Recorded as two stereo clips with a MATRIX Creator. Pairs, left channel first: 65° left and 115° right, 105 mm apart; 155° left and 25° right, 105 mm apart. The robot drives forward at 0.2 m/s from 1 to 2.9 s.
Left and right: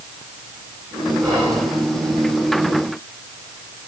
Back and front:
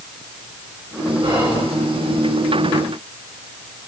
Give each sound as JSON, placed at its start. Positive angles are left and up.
{"t": 1.2, "sound": "whispering", "azimuth_deg": -55, "distance_m": 3.0}